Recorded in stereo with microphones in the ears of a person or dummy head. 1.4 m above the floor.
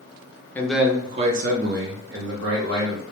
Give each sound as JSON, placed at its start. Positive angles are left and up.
{"t": 0.6, "sound": "a man speaking", "side_deg": 15, "distance_m": 0.5}